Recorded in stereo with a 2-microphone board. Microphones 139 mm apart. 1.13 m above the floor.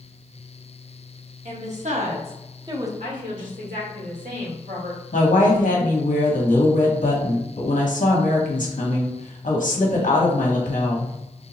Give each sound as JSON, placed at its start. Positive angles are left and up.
{"t": 1.4, "sound": "a woman speaking", "side_deg": -65, "distance_m": 1.3}
{"t": 3.0, "sound": "a woman speaking", "side_deg": -75, "distance_m": 1.7}
{"t": 5.1, "sound": "a woman speaking", "side_deg": 70, "distance_m": 1.1}